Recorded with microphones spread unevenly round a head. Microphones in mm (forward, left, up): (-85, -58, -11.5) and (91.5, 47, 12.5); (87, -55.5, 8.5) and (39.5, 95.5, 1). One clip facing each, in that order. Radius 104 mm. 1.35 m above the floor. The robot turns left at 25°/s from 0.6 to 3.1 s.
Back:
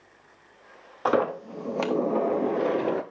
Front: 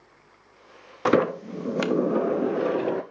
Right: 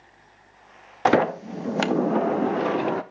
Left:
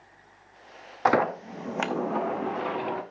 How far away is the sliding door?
About 0.6 m.